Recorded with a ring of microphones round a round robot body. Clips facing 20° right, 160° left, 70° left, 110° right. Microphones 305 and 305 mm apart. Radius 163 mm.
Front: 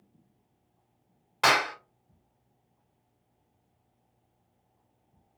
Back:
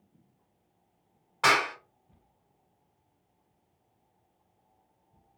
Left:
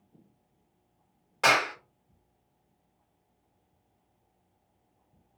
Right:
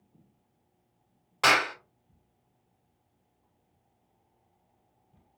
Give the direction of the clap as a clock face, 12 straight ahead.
1 o'clock.